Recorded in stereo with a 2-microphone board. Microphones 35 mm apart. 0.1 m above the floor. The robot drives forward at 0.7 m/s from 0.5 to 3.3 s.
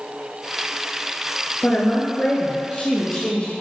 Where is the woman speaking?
35° left (ahead or behind), 1.4 m; by 3.5 s 30° left (ahead or behind), 1.7 m.